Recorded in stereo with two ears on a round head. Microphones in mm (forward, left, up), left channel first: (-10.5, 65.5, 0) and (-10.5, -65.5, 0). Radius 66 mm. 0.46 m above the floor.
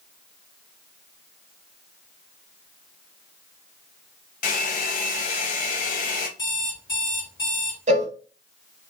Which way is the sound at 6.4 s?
30° left (ahead or behind).